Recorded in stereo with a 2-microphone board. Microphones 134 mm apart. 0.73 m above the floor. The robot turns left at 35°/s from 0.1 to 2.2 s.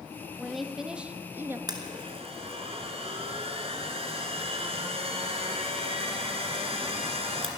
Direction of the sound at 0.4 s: 5° left.